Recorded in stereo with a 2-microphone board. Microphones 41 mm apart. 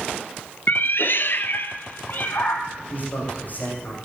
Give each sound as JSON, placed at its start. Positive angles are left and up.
{"t": 0.7, "sound": "a cat meowing", "side_deg": 55, "distance_m": 0.5}
{"t": 2.9, "sound": "a man speaking", "side_deg": 45, "distance_m": 7.0}